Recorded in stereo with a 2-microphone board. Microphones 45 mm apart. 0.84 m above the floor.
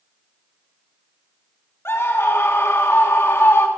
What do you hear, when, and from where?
1.9 s a scream: 65° left (ahead or behind), 1.5 m